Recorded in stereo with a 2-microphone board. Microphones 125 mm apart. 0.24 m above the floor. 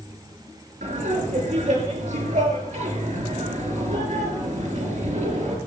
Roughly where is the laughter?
Right.